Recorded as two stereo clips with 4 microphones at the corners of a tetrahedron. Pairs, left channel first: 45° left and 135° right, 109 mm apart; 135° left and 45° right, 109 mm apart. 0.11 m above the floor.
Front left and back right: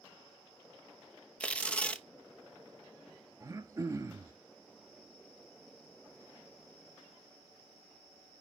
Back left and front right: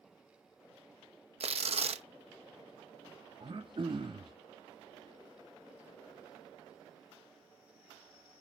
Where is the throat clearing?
80° right, 1.2 m.